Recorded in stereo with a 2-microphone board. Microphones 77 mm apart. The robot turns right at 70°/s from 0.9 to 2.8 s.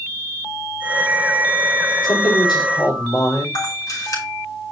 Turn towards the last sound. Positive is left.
turn(degrees=55)  # may be behind; listen again after turning